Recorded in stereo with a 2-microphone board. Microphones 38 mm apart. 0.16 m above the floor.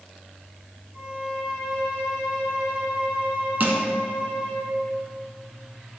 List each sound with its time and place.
0.9 s a violin: 35° right (ahead or behind), 3 m
3.6 s crushing: 45° right (ahead or behind), 1.4 m